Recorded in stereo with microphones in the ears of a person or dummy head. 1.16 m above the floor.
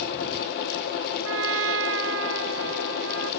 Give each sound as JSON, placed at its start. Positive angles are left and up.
{"t": 1.2, "sound": "a trumpet", "side_deg": -80}